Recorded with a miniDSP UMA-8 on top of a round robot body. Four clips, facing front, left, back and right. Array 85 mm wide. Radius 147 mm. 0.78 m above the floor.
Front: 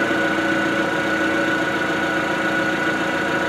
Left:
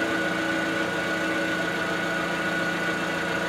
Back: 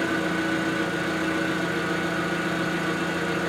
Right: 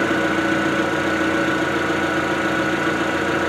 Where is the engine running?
55° right, 0.9 m.